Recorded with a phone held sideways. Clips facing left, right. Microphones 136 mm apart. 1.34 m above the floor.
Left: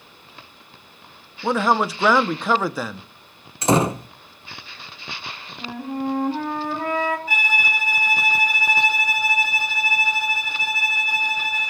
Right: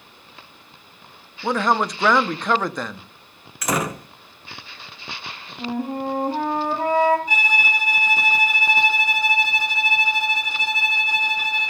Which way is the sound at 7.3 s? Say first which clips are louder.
Right 1 dB; 20° right (ahead or behind).